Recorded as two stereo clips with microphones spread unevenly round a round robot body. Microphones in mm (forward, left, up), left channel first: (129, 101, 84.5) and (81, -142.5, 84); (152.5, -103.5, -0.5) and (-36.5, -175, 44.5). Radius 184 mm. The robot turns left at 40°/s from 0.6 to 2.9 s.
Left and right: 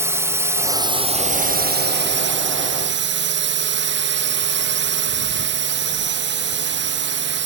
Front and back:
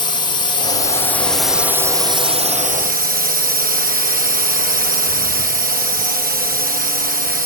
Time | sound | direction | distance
0.0 | a drone | 25° right | ?